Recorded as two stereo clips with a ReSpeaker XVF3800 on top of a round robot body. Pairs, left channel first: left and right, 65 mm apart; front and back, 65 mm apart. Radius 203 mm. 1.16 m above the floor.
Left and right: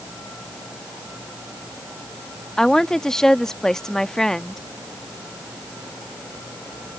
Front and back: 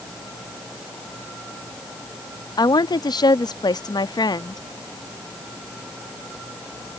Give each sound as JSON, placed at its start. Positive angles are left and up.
{"t": 2.6, "sound": "a woman speaking", "azimuth_deg": 10}